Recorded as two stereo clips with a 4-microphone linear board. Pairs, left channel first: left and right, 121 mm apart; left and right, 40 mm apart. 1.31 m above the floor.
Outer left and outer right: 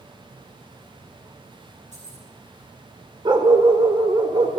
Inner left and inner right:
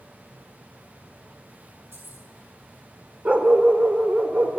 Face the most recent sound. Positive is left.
turn(degrees=-35)  # may be behind; listen again after turning